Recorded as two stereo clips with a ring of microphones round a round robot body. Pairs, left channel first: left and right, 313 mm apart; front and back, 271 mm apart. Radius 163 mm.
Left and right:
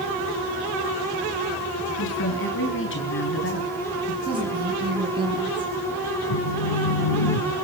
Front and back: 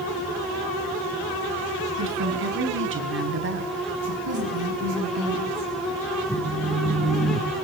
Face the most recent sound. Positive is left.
turn(degrees=85)